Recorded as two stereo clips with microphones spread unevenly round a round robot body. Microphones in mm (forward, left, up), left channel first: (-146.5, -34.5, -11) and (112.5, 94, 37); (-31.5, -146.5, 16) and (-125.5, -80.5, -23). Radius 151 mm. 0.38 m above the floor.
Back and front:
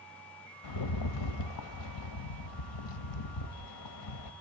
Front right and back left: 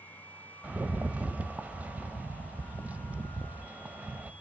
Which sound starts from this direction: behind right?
A rattle, at 0.6 s.